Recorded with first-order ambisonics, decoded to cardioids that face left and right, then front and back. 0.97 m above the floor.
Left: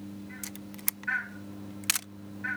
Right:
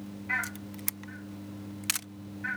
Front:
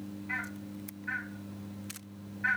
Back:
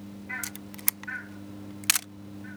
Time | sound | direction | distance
0.4 | a camera shutter | 175° left | ?